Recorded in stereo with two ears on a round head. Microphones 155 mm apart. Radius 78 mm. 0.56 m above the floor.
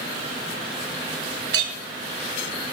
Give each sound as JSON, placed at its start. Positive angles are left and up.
{"t": 1.5, "sound": "a clink", "side_deg": -65, "distance_m": 2.0}